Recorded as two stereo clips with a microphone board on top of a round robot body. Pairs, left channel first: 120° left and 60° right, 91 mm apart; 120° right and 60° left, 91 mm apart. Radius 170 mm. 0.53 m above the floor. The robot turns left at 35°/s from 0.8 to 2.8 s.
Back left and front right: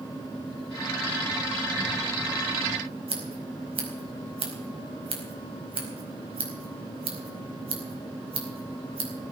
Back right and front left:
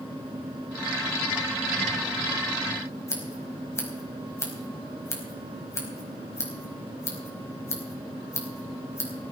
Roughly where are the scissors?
Ahead right.